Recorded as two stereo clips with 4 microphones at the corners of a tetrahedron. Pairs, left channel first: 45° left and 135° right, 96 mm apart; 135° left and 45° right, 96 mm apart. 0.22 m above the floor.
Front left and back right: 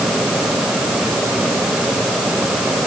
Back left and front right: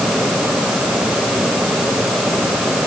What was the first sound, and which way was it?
Only background noise.